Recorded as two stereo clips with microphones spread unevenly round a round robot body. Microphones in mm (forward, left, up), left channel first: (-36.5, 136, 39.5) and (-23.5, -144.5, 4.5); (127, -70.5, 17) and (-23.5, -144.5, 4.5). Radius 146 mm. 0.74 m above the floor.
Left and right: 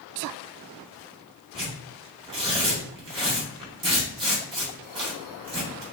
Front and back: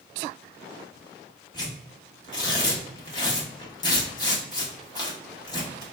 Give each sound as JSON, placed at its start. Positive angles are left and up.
{"t": 1.5, "sound": "tearing paper", "azimuth_deg": -35, "distance_m": 1.2}